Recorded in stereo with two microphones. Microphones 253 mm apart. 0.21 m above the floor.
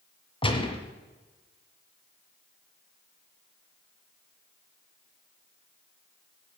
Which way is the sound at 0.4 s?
20° left (ahead or behind).